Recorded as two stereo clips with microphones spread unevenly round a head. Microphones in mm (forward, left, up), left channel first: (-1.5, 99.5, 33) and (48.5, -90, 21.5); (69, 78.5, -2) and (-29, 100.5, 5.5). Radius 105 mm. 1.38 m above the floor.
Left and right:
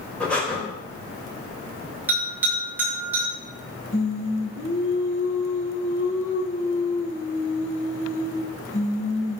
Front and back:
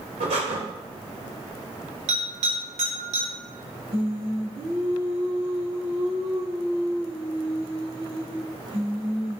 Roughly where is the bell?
Behind right.